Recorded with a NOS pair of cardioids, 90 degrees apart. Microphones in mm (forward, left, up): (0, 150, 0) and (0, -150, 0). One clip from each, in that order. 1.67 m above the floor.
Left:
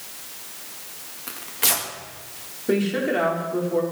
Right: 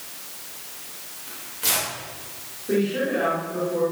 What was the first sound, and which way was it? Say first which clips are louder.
Tearing paper: left 2 dB; 65° left.